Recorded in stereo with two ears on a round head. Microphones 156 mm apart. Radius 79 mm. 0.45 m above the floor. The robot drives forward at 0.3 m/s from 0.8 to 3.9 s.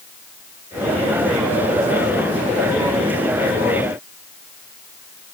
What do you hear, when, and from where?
Only background noise.